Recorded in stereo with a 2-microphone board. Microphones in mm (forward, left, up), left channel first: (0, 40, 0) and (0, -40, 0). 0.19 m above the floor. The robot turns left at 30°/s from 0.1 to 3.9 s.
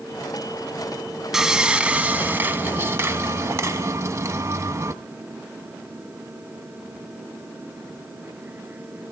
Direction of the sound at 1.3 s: 10° right.